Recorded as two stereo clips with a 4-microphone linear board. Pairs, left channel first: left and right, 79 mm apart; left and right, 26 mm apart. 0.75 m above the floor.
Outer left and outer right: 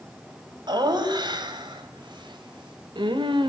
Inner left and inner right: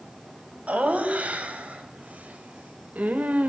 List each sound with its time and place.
0.7 s laughter: 60° right (ahead or behind), 4 m; by 3.5 s 75° right (ahead or behind), 2.5 m